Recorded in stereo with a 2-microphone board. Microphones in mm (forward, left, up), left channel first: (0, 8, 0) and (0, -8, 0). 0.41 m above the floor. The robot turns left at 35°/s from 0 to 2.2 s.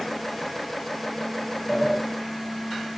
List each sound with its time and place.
1.7 s a sliding door: 20° right (ahead or behind), 1.7 m; by 2.0 s 30° right (ahead or behind), 1.7 m